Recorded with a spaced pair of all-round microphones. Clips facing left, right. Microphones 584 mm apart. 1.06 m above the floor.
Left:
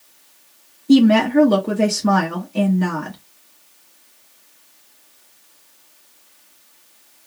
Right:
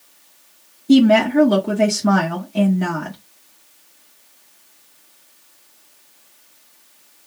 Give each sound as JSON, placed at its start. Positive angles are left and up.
{"t": 0.9, "sound": "a woman speaking", "side_deg": -10, "distance_m": 0.8}